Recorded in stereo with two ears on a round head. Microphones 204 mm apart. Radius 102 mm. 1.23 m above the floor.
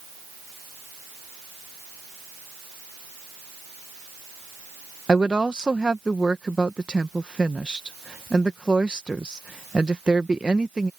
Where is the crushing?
I don't hear crushing.